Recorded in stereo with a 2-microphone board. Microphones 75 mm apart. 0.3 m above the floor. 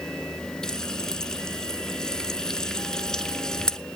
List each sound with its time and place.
0.6 s frying: 10° left (ahead or behind), 1.0 m